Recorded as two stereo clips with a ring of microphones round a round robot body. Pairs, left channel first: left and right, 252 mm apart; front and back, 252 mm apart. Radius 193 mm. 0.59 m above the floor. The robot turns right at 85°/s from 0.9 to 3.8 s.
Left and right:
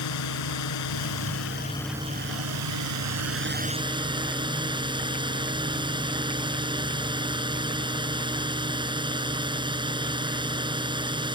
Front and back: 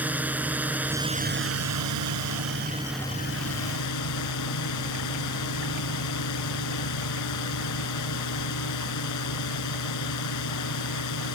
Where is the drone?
95° left; by 11.3 s 20° right.